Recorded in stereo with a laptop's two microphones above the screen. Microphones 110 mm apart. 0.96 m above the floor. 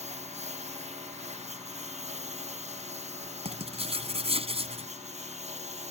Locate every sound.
0.0 s a lawn mower: 90° right; by 5.9 s 85° right
3.5 s writing: 65° right (ahead or behind)